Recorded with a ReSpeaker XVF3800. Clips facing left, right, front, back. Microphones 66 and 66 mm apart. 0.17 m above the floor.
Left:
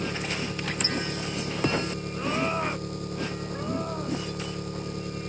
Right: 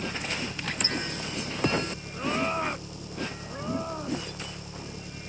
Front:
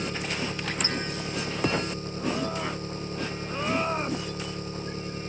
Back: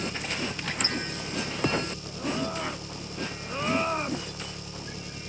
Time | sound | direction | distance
0.0 | an engine running | 55° left | ?